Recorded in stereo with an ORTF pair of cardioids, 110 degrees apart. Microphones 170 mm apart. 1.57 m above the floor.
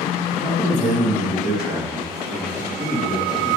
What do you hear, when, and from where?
0.3 s a man speaking: 5° right, 2.5 m